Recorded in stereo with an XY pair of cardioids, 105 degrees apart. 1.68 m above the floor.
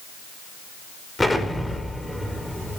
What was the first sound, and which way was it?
An explosion, 10° left.